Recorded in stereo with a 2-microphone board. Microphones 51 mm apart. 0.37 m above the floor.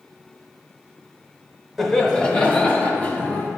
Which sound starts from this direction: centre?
Laughter, at 1.8 s.